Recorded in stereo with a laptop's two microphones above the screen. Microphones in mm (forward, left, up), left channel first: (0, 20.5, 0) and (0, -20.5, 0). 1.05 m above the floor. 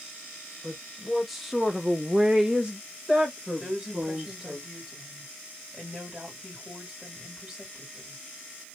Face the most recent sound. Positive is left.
turn(degrees=-20)  # may be behind; listen again after turning